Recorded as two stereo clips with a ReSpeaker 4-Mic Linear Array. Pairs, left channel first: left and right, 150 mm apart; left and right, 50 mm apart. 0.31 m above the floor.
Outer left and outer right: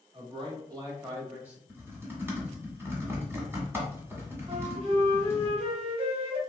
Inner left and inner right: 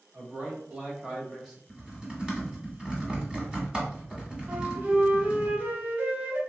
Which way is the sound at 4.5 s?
40° right (ahead or behind).